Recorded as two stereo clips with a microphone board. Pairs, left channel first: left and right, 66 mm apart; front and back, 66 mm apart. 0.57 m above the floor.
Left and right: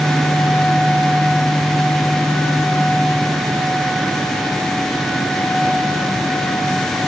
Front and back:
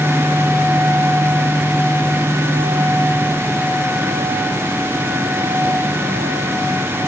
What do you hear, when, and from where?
Only background noise.